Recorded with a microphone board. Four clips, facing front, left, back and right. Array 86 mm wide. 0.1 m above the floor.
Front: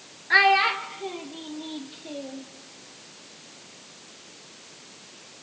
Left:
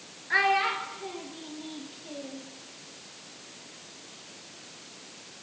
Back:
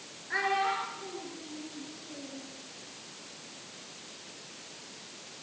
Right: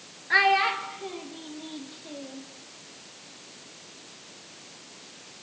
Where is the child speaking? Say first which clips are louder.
Right 3 dB, front 9 dB; 20° right, 1.5 m; by 2.5 s 5° right, 3 m.